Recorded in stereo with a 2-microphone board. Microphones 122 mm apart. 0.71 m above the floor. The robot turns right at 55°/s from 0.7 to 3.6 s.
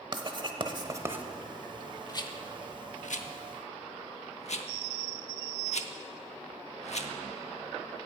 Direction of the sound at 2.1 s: 30° left (ahead or behind).